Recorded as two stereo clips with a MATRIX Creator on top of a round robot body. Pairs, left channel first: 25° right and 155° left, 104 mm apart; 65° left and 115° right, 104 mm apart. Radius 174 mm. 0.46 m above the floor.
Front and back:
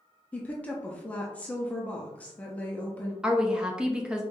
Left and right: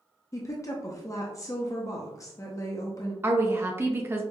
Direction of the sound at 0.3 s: 45° left.